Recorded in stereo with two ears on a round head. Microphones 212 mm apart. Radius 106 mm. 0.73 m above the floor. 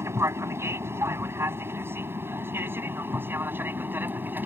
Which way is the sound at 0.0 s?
10° right (ahead or behind).